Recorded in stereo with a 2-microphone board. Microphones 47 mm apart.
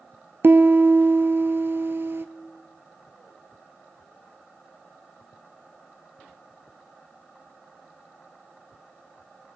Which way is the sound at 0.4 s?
60° right (ahead or behind).